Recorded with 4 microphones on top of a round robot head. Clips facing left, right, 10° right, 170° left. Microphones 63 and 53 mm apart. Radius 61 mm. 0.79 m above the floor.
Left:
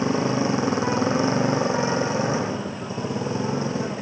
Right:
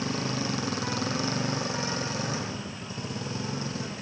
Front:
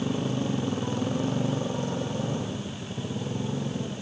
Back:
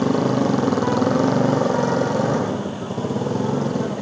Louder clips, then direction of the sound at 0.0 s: Left 9 dB, back 10 dB; 155° left.